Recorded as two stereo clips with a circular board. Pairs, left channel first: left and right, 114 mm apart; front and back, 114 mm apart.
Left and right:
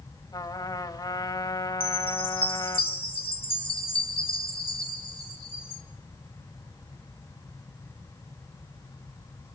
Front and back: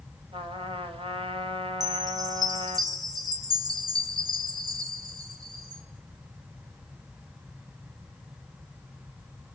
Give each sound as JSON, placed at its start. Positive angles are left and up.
{"t": 0.3, "sound": "a trumpet", "azimuth_deg": 140, "distance_m": 1.8}
{"t": 1.8, "sound": "a chime", "azimuth_deg": 125, "distance_m": 3.0}